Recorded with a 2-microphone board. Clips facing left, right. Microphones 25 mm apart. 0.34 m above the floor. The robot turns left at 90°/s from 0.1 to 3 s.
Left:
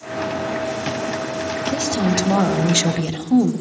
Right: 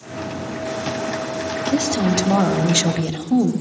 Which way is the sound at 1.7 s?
100° right.